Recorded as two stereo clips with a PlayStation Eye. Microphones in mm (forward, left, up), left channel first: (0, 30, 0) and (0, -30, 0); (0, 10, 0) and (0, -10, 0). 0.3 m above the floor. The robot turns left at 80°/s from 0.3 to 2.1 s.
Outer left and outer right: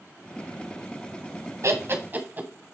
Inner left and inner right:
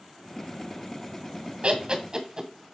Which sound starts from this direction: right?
Laughter, at 1.6 s.